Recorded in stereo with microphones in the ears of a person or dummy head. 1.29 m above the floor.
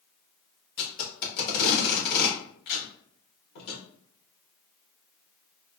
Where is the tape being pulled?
55° left (ahead or behind), 1.4 m.